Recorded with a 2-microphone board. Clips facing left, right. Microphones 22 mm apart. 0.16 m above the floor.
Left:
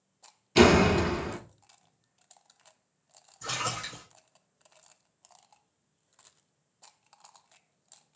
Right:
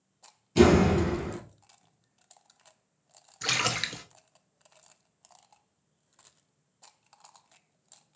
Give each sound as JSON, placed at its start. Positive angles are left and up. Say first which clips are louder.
{"t": 0.6, "sound": "a door slam", "louder": "left 1 dB", "side_deg": 40, "distance_m": 0.9}
{"t": 3.4, "sound": "a splash", "louder": "right 5 dB", "side_deg": -60, "distance_m": 0.6}